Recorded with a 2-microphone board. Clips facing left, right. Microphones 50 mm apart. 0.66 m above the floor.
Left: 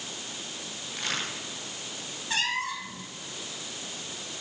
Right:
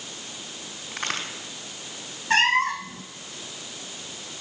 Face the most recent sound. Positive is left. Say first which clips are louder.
# right 9 dB
turn(degrees=-55)  # may be behind; listen again after turning